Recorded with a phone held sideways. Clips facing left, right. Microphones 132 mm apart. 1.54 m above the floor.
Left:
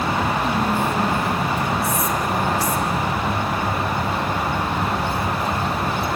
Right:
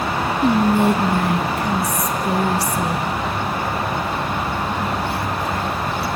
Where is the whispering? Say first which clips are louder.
Right 6 dB; 75° right (ahead or behind), 0.8 m.